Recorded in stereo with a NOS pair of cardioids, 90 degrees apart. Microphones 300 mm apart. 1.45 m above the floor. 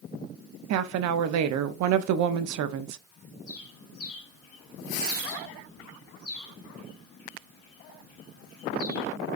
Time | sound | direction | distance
0.7 | a woman speaking | 70° right | 0.6 m
3.5 | a bird | 45° left | 1.7 m